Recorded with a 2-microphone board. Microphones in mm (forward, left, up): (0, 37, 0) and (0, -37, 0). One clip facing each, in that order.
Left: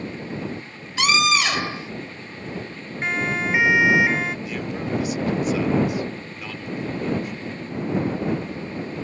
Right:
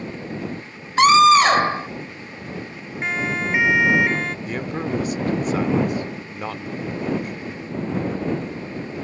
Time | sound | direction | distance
1.0 | a scream | 45° right (ahead or behind) | ?
3.0 | a siren | centre (ahead or behind) | ?
4.5 | a man speaking | 40° right (ahead or behind) | ?